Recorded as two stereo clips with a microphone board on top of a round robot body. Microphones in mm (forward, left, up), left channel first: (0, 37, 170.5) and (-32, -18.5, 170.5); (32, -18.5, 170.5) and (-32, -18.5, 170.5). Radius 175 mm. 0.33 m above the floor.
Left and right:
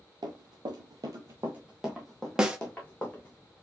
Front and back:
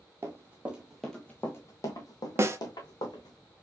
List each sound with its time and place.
0.2 s running footsteps: 125° right, 0.8 m; by 3.4 s 10° right, 1.6 m
2.4 s a snare drum: 170° left, 1.1 m